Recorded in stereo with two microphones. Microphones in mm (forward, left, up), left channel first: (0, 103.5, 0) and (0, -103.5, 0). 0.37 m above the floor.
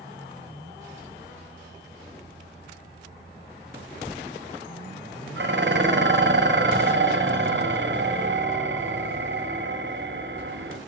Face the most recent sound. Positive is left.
turn(degrees=-65)  # may be behind; listen again after turning